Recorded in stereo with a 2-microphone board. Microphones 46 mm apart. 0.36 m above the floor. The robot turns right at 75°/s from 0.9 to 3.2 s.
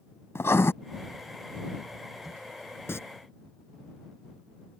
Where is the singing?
60° left (ahead or behind); by 3.0 s 70° left (ahead or behind).